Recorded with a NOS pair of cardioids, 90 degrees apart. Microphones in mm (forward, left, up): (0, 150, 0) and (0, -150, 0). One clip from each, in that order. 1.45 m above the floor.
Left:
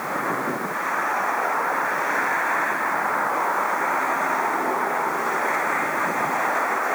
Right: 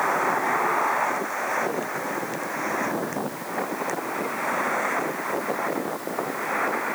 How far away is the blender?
No blender in this recording.